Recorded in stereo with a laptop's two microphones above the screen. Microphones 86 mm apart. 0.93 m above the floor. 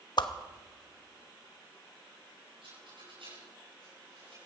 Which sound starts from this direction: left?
A whoosh, at 0.2 s.